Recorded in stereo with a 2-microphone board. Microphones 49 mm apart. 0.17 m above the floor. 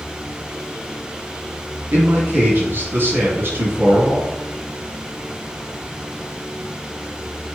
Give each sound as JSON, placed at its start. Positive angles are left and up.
{"t": 1.9, "sound": "a man speaking", "side_deg": -50, "distance_m": 1.9}